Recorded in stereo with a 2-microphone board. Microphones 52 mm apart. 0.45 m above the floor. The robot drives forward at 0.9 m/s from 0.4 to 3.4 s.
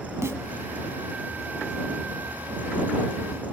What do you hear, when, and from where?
0.2 s a snare drum: 70° right (ahead or behind), 0.9 m